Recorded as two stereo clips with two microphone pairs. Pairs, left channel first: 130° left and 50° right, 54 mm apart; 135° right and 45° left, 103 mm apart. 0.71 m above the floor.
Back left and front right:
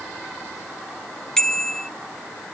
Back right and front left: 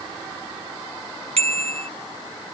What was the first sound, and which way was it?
A bicycle bell, 50° left.